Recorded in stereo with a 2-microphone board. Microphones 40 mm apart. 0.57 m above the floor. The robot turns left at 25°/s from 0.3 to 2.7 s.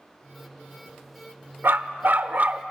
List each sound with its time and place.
1.6 s a dog barking: 65° right (ahead or behind), 0.7 m; by 2.6 s 40° right (ahead or behind), 0.7 m